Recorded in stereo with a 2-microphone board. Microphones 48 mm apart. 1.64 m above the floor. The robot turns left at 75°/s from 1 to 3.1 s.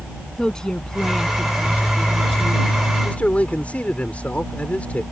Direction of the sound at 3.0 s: 25° left (ahead or behind).